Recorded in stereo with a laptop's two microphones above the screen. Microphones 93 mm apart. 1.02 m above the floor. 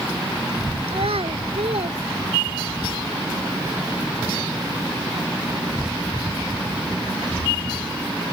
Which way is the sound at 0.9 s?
80° right.